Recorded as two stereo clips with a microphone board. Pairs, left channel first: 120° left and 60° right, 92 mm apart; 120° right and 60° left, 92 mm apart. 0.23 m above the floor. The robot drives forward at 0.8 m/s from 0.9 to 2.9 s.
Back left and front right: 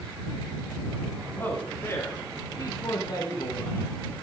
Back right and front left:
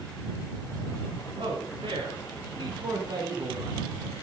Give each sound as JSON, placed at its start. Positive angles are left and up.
{"t": 1.4, "sound": "a man speaking", "azimuth_deg": 55, "distance_m": 2.5}